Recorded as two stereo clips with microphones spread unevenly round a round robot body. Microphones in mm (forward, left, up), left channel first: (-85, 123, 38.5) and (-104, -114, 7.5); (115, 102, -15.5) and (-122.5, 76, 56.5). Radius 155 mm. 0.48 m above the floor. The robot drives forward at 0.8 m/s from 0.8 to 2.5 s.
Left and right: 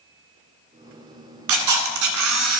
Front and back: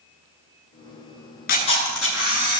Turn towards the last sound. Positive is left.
turn(degrees=-115)